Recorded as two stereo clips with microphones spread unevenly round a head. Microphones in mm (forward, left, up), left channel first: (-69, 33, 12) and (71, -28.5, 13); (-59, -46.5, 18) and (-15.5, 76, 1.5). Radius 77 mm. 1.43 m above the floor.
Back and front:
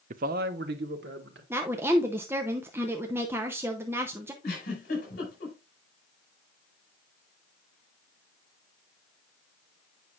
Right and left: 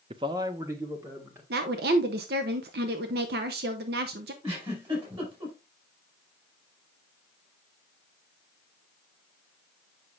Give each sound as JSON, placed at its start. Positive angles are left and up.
{"t": 0.1, "sound": "a man speaking", "azimuth_deg": 15, "distance_m": 0.5}
{"t": 1.5, "sound": "a woman speaking", "azimuth_deg": 50, "distance_m": 0.7}
{"t": 4.4, "sound": "a giggle", "azimuth_deg": 120, "distance_m": 4.5}